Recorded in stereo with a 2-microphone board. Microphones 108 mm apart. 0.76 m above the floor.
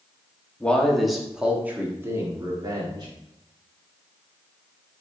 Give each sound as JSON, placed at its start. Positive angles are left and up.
{"t": 0.6, "sound": "a man speaking", "side_deg": 10, "distance_m": 1.3}